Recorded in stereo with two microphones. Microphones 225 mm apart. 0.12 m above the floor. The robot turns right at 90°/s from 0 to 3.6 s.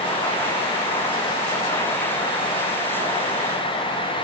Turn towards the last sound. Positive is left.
No sound to turn to.